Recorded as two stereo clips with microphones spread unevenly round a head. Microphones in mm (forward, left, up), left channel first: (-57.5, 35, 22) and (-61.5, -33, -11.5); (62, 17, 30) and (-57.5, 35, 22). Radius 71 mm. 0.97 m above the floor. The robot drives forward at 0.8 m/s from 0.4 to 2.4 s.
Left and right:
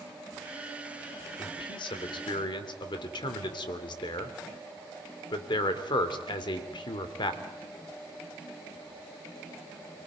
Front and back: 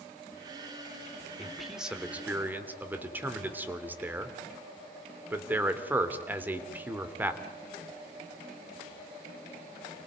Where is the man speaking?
80° left, 3 m; by 7.4 s 95° left, 3 m.